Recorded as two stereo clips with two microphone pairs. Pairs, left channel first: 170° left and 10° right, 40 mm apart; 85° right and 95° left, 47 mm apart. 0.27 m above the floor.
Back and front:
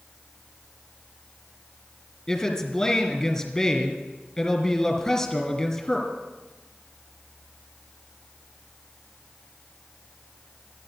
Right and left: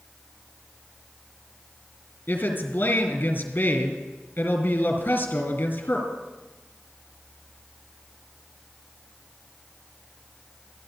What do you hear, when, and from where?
2.3 s a woman speaking: 110° right, 2.5 m